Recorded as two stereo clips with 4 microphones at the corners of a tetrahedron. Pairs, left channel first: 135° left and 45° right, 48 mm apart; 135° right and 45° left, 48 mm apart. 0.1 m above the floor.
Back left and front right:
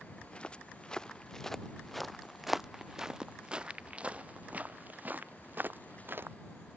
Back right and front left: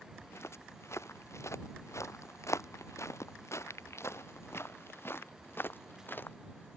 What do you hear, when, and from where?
0.2 s footsteps: 160° right; by 6.4 s 85° right